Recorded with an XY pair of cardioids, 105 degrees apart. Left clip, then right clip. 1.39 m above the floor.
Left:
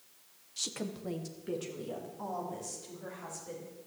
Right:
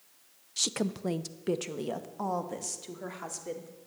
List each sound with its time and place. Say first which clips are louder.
0.6 s a woman speaking: right 7 dB; 45° right, 0.5 m; by 3.7 s 75° right, 2 m